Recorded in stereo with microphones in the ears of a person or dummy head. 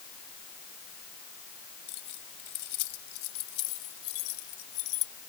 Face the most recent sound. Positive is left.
turn(degrees=85)